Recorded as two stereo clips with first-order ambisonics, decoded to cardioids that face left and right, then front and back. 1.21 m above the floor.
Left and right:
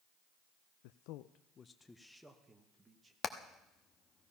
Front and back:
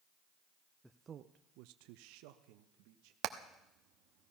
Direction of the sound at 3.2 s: 150° left.